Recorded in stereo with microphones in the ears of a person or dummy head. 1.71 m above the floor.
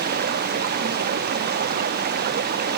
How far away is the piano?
I don't hear a piano.